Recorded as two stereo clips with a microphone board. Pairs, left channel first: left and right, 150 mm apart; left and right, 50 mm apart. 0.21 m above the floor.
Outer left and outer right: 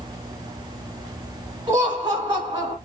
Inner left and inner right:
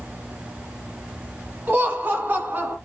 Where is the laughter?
40° right (ahead or behind), 1.5 m.